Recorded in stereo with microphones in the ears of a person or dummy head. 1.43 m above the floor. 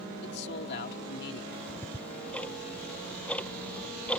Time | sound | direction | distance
0.2 | a man speaking | 60° left (ahead or behind) | ?
1.5 | ticking | 5° left (ahead or behind) | ?